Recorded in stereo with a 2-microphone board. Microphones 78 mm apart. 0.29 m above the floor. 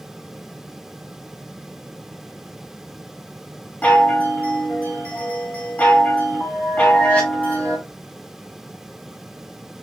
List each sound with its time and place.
3.8 s a chime: 20° left (ahead or behind), 1.5 m